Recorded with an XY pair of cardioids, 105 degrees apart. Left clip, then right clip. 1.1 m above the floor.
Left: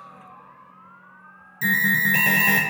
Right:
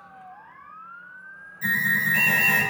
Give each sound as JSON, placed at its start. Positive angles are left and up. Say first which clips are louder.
{"t": 1.6, "sound": "an alarm", "louder": "left 3 dB", "azimuth_deg": 65, "distance_m": 0.5}